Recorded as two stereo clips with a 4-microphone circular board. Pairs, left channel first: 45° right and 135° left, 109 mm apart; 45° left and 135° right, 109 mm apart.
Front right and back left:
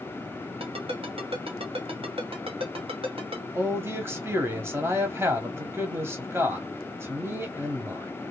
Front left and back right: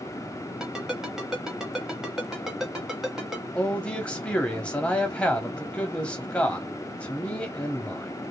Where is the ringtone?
140° left, 1.7 m.